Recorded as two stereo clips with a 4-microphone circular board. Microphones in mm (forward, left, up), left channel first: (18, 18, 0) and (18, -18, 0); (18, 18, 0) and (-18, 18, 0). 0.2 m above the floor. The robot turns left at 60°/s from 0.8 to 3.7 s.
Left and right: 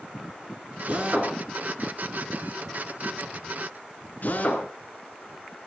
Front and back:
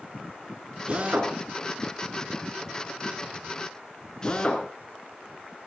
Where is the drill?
125° right, 3 m; by 4.7 s 65° left, 3 m.